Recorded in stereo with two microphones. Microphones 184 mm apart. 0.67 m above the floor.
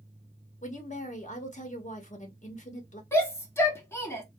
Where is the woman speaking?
45° left (ahead or behind), 1.0 m.